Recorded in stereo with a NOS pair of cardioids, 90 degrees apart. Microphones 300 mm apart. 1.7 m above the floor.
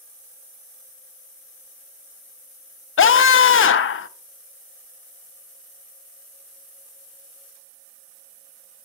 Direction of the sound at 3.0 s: 45° left.